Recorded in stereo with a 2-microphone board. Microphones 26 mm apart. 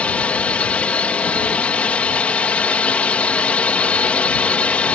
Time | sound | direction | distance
0.0 | a drone | 60° left (ahead or behind) | ?